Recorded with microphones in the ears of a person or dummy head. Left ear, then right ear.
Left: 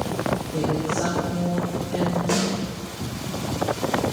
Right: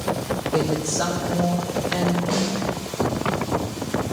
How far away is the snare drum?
About 3.5 m.